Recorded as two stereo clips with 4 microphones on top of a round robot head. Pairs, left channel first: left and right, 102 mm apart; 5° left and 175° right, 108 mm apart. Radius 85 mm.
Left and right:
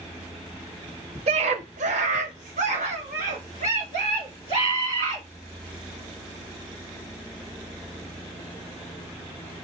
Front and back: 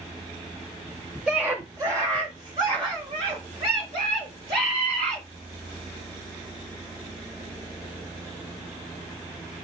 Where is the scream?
90° right, 0.6 m; by 5.2 s 120° right, 2.5 m.